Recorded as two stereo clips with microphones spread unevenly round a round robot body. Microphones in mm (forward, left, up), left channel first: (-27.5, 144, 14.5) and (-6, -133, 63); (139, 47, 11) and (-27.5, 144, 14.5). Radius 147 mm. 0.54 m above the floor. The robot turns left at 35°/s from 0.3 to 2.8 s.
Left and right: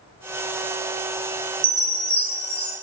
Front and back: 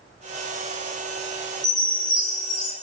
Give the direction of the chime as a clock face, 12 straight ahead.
5 o'clock.